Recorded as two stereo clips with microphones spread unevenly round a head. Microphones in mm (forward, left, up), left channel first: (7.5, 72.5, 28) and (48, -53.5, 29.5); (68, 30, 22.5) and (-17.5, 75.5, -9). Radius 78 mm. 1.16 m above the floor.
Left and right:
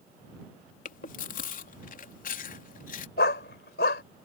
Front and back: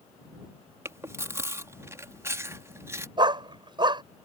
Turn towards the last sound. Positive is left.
turn(degrees=105)